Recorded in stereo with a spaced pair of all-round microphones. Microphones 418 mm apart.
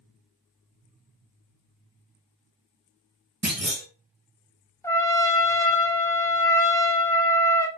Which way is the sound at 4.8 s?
5° left (ahead or behind).